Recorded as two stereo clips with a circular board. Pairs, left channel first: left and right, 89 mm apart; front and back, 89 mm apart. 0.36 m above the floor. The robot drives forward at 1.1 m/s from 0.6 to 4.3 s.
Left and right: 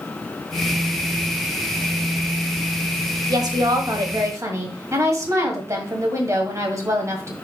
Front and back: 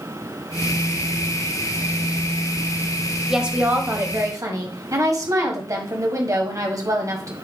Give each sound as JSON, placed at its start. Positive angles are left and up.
{"t": 3.3, "sound": "a woman speaking", "azimuth_deg": -95, "distance_m": 1.5}